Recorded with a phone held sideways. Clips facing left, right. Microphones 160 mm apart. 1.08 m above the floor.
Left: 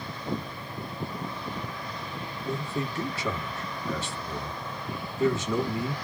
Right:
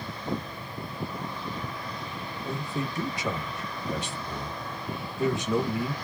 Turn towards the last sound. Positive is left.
turn(degrees=-15)  # may be behind; listen again after turning